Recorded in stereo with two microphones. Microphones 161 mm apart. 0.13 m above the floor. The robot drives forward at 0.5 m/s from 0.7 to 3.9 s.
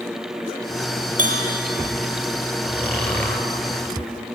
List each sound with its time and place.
1.2 s a bell: 50° right (ahead or behind), 4 m
2.6 s snoring: 10° left (ahead or behind), 3 m